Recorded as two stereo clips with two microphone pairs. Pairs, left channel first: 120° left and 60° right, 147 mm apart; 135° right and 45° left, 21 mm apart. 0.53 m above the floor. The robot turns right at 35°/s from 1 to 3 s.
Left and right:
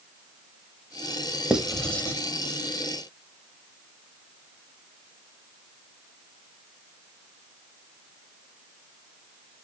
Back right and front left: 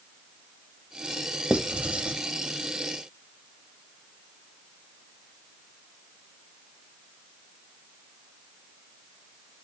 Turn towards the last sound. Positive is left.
turn(degrees=75)